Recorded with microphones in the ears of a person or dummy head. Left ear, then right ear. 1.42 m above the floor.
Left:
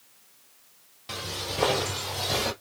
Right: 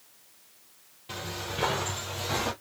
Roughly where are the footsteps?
Left.